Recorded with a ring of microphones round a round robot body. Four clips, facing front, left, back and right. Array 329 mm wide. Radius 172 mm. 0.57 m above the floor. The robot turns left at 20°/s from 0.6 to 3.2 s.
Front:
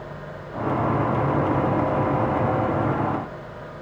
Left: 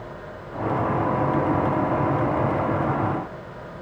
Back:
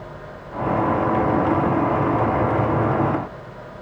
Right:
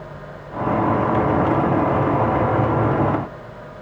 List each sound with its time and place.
Only background noise.